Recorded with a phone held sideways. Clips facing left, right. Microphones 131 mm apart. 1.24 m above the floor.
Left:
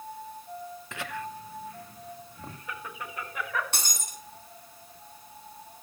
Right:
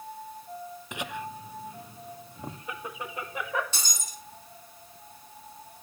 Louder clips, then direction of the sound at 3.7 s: Left 2 dB; 60° left (ahead or behind).